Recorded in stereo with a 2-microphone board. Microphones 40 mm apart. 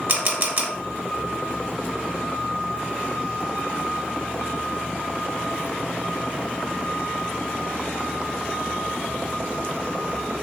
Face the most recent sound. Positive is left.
turn(degrees=-50)  # may be behind; listen again after turning